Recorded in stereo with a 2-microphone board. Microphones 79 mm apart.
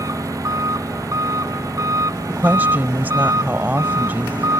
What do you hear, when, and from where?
0.0 s an engine running: 45° right (ahead or behind)
2.3 s a woman speaking: 25° right (ahead or behind)